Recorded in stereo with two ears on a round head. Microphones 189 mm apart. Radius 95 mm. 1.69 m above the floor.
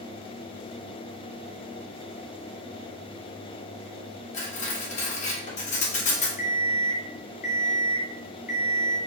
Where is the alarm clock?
35° left (ahead or behind), 1.2 m.